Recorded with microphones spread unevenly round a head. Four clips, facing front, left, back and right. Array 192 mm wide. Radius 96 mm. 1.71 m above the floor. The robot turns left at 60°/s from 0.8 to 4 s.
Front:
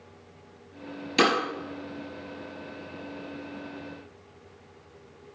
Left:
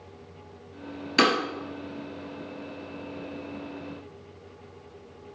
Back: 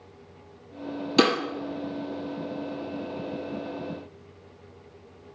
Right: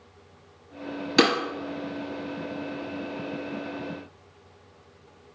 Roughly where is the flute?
No flute in this recording.